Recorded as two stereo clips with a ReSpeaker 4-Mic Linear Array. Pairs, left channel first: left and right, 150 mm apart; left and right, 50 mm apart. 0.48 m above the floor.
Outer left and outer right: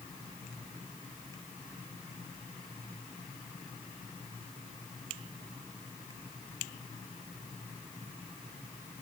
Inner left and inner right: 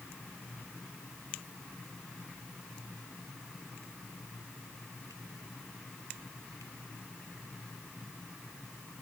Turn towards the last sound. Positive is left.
No sound to turn to.